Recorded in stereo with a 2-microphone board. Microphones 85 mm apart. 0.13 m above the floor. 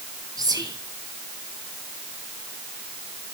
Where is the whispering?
50° right (ahead or behind), 2.5 m.